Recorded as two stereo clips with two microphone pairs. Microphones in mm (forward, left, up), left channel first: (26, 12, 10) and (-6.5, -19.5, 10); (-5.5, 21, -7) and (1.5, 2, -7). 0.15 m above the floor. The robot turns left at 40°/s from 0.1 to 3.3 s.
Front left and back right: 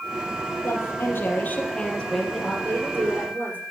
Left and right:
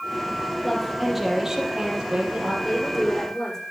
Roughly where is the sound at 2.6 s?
Behind right.